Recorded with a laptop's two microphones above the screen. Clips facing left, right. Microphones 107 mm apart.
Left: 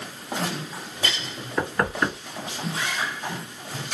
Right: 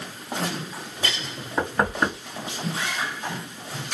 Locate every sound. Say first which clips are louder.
1.6 s knocking: right 1 dB; 20° right (ahead or behind), 1.7 m